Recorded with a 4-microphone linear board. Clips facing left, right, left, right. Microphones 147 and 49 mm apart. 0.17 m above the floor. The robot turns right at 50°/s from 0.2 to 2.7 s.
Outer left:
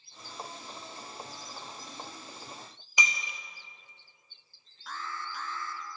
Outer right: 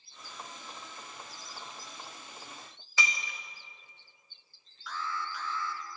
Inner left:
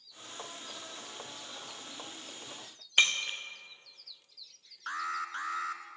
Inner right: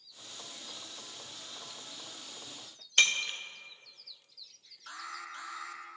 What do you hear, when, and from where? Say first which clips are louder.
3.0 s breaking glass: outer left 1 dB, even; 15° left (ahead or behind), 2 m
4.9 s an alarm: outer right 2 dB, inner left 8 dB; 50° left (ahead or behind), 1.3 m